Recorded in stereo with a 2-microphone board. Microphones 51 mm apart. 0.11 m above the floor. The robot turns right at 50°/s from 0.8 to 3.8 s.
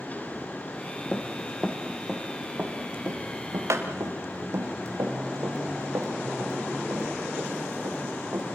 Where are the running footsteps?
25° left (ahead or behind), 2 m; by 8.6 s 60° right (ahead or behind), 6 m.